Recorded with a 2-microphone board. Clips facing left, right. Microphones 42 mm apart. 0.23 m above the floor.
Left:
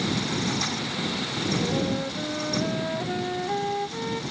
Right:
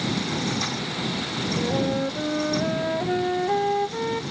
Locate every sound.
1.6 s a flute: 15° right (ahead or behind)